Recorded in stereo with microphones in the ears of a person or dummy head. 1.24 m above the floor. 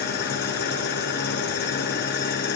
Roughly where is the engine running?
Left.